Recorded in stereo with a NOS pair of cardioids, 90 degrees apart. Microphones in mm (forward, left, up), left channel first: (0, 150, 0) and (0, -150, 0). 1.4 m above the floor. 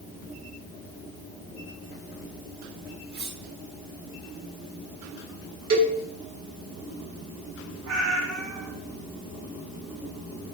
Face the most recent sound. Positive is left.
turn(degrees=-65)